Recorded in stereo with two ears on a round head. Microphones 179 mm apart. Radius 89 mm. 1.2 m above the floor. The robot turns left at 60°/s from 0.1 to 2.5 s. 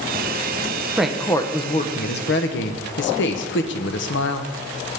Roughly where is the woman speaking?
Behind.